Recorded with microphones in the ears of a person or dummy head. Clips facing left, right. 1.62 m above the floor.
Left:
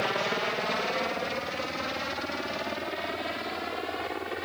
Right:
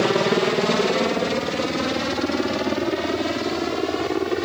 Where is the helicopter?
55° right (ahead or behind); by 4.5 s 70° right (ahead or behind).